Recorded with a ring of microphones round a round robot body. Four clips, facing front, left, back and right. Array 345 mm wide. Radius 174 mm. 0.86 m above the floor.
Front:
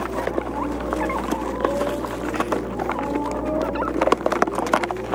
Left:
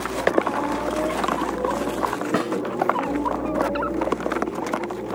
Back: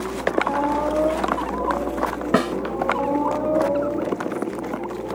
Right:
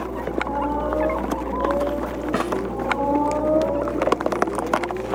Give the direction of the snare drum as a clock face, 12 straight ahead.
6 o'clock.